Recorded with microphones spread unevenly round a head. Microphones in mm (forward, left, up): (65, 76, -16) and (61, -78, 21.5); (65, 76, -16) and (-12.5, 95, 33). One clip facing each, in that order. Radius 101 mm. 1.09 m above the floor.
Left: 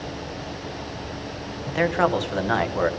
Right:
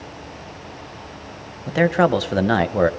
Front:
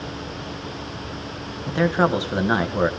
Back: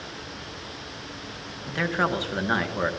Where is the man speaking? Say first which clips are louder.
Right 5 dB, front 6 dB; 40° right, 0.6 m.